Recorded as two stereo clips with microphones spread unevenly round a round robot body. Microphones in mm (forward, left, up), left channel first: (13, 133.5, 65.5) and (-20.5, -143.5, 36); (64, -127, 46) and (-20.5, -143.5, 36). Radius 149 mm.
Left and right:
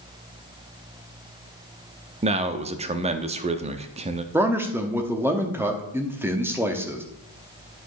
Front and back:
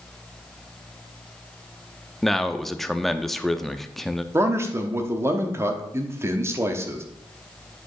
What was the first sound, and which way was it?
A man speaking, 85° right.